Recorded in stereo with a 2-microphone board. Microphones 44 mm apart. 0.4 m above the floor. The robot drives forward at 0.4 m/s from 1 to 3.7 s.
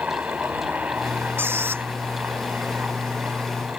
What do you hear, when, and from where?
0.0 s a helicopter: 35° right (ahead or behind); by 3.8 s 30° right (ahead or behind)
1.4 s a squeak: 55° right (ahead or behind)